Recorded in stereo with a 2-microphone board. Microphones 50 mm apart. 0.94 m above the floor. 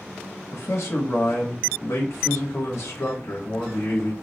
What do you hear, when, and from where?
0.5 s a man speaking: 65° left (ahead or behind), 0.9 m